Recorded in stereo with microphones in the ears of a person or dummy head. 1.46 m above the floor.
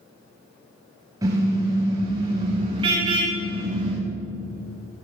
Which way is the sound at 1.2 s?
15° right (ahead or behind).